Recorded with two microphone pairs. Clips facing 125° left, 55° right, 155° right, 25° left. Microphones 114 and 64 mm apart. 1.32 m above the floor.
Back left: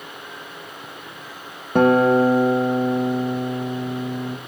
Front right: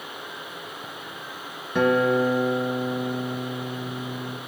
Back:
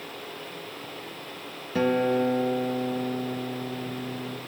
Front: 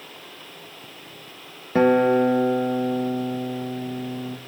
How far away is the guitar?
About 1.3 m.